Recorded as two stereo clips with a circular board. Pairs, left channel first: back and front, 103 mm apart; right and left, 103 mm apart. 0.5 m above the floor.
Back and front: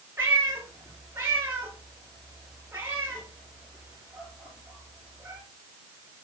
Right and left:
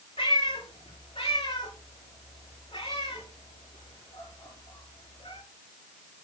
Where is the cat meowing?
70° right, 4.5 m.